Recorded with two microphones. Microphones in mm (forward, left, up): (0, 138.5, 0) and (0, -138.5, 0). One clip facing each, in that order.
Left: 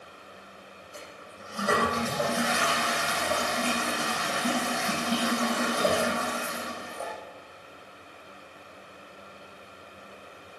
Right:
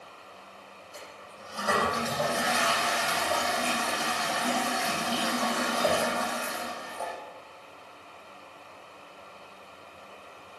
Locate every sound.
0.9 s a toilet flushing: 15° left (ahead or behind), 6.5 m